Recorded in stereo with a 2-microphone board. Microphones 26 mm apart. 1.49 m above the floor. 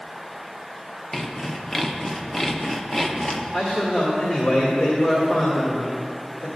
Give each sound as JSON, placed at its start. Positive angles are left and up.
{"t": 1.1, "sound": "sawing", "side_deg": 15, "distance_m": 0.6}
{"t": 3.5, "sound": "a man speaking", "side_deg": 65, "distance_m": 1.8}